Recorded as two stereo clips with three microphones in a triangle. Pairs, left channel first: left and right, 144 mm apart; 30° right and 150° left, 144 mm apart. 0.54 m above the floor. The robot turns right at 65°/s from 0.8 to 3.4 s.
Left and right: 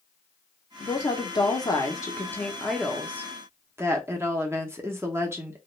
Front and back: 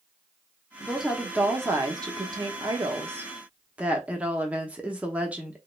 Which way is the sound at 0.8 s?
50° left.